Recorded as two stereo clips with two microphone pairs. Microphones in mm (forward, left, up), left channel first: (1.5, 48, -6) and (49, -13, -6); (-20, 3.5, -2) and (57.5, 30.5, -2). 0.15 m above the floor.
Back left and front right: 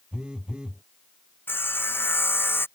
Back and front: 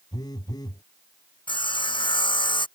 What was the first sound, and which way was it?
A phone buzzing, 130° right.